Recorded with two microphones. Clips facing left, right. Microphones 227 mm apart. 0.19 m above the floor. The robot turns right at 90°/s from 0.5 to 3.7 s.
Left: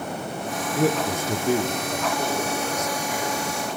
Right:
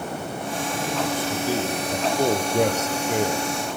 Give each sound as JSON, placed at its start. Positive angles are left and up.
{"t": 0.8, "sound": "a man speaking", "azimuth_deg": 90, "distance_m": 3.5}